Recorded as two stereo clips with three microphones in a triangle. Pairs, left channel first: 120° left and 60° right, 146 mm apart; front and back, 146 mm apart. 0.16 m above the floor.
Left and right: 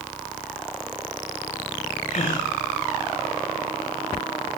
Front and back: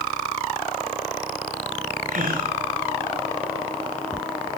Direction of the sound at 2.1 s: 165° left.